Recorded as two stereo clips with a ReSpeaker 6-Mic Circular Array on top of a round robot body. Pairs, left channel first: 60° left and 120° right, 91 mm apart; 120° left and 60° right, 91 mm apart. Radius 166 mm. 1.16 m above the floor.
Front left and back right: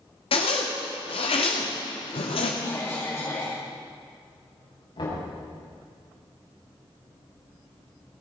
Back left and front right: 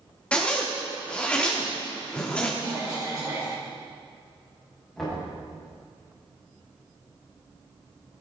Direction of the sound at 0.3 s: 40° left.